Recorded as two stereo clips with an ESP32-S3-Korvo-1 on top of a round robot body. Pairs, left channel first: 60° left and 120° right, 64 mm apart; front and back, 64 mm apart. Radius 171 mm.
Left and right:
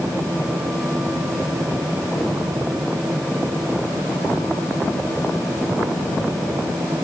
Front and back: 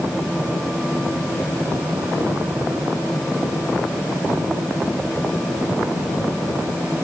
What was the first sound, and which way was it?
Only background noise.